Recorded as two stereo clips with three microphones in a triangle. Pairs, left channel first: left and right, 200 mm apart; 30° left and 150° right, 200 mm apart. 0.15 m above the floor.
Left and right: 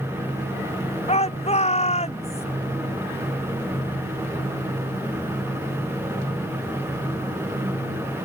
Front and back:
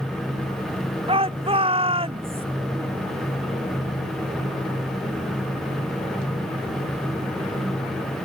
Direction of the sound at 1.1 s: 150° left.